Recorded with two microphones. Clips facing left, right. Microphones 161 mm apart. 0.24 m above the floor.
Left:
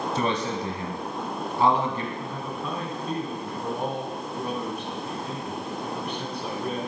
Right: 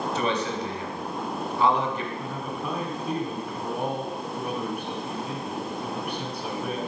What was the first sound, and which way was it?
A man speaking, 30° left (ahead or behind).